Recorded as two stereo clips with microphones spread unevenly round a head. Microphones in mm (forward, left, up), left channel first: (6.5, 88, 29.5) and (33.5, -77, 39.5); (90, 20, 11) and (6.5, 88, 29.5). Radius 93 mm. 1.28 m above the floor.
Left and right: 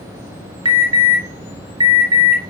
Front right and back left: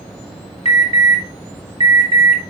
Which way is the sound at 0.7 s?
140° right.